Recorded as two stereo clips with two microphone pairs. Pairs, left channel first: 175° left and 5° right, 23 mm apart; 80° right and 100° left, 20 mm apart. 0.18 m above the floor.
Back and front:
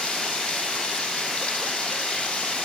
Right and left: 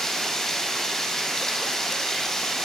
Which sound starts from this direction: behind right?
Running water, at 0.0 s.